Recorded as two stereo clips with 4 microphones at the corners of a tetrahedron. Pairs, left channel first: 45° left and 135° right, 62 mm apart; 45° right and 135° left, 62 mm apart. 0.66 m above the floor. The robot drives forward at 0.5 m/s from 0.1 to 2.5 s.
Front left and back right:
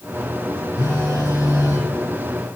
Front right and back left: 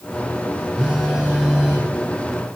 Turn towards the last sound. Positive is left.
turn(degrees=70)